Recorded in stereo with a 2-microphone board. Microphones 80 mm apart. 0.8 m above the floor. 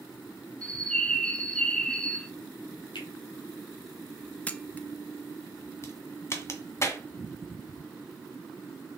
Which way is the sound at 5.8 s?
35° left (ahead or behind).